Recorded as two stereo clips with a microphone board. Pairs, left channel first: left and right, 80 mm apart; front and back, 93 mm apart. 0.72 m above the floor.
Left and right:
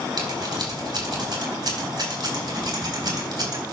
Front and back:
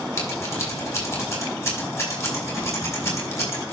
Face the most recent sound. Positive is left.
turn(degrees=-60)